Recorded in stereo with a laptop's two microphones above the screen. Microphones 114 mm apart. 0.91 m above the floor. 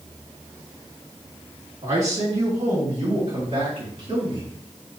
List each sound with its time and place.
1.8 s a man speaking: 70° right (ahead or behind), 1.6 m; by 4.5 s 65° right (ahead or behind), 3 m